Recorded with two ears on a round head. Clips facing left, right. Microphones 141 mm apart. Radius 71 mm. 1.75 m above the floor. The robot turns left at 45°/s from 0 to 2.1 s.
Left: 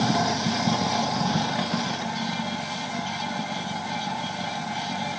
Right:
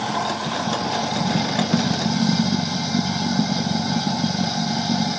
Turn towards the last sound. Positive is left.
turn(degrees=-50)